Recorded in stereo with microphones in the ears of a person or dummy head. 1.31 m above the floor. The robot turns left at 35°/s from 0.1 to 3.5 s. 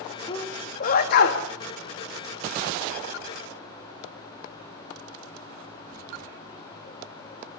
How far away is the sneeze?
About 1.7 m.